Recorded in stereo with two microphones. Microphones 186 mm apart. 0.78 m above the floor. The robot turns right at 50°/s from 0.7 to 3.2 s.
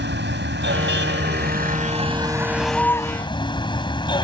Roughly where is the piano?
I don't hear a piano.